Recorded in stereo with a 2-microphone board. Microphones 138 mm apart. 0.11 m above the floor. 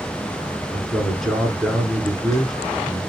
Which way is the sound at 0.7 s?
5° left (ahead or behind).